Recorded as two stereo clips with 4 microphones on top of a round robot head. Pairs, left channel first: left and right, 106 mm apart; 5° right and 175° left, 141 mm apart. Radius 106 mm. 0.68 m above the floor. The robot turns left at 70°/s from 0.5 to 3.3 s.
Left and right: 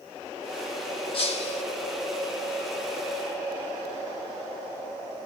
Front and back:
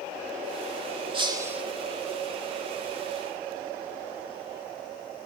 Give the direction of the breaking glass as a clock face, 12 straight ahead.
8 o'clock.